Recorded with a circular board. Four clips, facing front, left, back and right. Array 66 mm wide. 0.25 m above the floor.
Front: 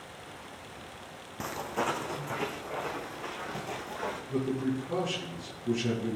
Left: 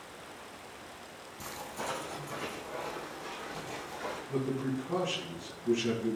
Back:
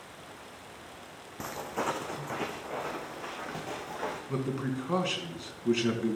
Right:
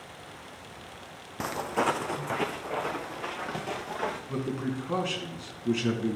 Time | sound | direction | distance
1.4 | footsteps | 85° right | 0.9 m
4.3 | a man speaking | 145° right | 3.5 m